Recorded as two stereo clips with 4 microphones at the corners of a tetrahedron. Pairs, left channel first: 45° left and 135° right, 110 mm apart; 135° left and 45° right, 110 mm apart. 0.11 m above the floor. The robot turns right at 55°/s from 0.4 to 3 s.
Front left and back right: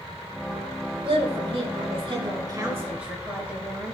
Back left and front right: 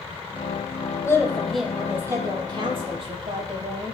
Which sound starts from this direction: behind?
A woman speaking, at 1.0 s.